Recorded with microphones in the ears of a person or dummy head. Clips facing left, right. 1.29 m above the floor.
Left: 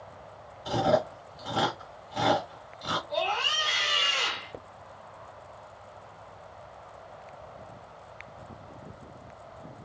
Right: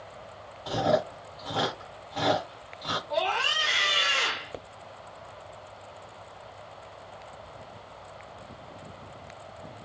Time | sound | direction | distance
0.7 | chewing | 20° left (ahead or behind) | 1.4 m
3.1 | a scream | 25° right (ahead or behind) | 1.1 m